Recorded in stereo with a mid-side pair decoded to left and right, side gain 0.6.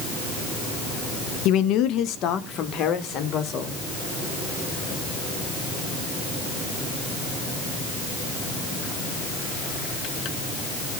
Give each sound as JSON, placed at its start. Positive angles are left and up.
{"t": 1.4, "sound": "a man speaking", "azimuth_deg": 65, "distance_m": 0.9}